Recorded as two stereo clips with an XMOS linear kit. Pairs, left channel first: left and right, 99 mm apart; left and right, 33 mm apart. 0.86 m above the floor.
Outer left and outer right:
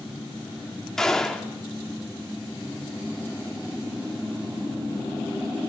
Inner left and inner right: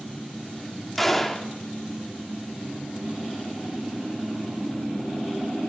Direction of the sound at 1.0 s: 5° left (ahead or behind).